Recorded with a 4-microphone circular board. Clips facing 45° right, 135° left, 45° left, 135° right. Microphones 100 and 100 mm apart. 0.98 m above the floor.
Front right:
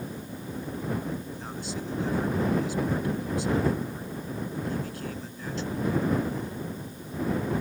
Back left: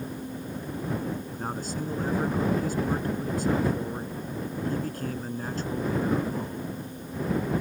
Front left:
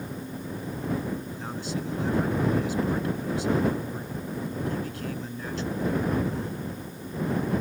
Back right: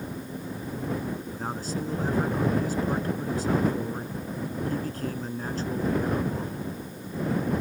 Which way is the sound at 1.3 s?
Straight behind.